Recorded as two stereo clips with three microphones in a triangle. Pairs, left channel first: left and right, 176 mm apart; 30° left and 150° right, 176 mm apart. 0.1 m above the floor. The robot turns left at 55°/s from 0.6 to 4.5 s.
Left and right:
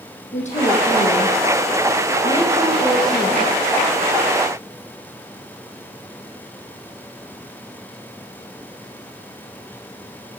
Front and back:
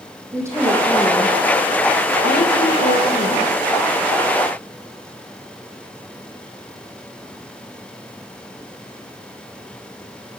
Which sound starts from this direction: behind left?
A woman speaking, at 0.3 s.